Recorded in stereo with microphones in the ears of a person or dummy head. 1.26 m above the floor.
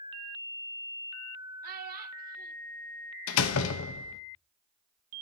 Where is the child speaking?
55° right (ahead or behind), 0.9 m.